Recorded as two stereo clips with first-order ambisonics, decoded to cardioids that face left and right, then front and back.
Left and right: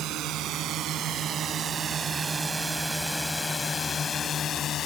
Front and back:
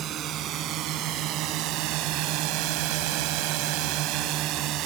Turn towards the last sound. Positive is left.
turn(degrees=145)